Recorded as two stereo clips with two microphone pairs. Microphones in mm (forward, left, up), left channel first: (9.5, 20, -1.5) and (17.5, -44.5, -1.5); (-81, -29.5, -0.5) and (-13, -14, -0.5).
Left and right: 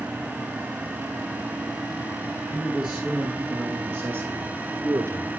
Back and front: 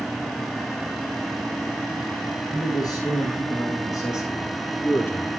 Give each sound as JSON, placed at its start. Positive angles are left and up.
{"t": 2.5, "sound": "a man speaking", "azimuth_deg": -175, "distance_m": 2.5}